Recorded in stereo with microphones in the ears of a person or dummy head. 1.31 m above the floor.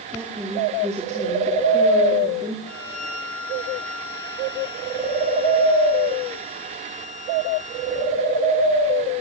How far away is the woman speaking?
About 2.5 m.